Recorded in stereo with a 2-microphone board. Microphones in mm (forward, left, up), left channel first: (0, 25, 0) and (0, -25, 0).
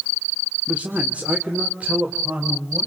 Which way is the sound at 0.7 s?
30° right (ahead or behind).